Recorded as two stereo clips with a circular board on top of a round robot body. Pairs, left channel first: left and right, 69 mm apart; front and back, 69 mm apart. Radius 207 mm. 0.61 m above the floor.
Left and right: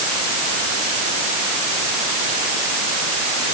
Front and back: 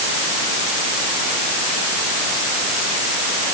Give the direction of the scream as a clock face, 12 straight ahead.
I don't hear a scream.